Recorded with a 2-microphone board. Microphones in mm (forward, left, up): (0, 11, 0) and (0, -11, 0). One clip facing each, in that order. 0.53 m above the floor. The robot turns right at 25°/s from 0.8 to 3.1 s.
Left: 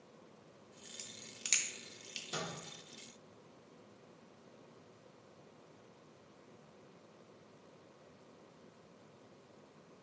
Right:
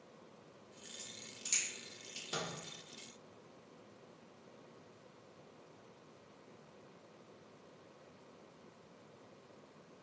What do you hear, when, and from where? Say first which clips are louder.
1.0 s a crack: left 2 dB; 55° left (ahead or behind), 0.6 m; by 2.2 s 40° left (ahead or behind), 0.6 m
2.3 s a microwave: right 1 dB; 20° right (ahead or behind), 0.9 m